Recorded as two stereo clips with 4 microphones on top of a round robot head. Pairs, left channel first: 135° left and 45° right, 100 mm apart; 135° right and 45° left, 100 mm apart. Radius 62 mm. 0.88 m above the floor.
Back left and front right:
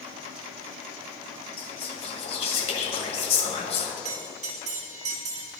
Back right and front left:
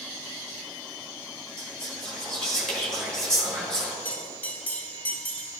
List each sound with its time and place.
1.6 s whispering: 140° left, 1.9 m
4.0 s a bell: 60° right, 1.2 m